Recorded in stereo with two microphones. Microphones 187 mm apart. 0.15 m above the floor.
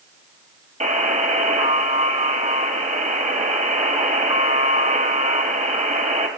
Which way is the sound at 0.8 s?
40° right (ahead or behind).